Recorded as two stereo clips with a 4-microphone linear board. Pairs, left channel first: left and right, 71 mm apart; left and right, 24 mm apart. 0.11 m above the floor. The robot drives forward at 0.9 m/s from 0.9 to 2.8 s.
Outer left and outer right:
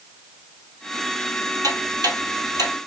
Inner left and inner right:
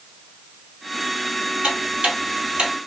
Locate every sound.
1.6 s ticking: 60° right (ahead or behind), 2.5 m